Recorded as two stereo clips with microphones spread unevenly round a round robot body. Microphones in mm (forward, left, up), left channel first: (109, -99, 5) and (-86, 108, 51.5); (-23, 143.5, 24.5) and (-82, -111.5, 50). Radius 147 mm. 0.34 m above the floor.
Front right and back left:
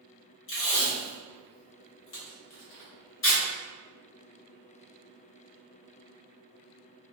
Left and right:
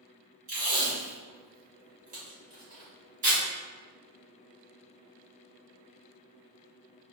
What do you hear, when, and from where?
0.5 s tape being pulled: 45° right, 1.4 m